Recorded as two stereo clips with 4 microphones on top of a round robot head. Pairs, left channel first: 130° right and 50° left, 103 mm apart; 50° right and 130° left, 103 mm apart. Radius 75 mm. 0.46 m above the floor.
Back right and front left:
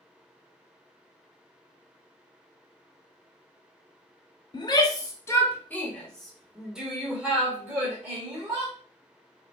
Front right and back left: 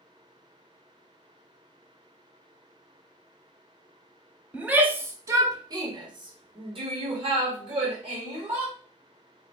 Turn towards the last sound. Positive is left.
turn(degrees=115)